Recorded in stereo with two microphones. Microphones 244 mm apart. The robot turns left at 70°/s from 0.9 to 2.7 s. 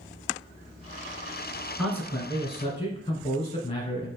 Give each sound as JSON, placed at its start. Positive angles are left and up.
{"t": 1.8, "sound": "a man speaking", "side_deg": 5, "distance_m": 1.2}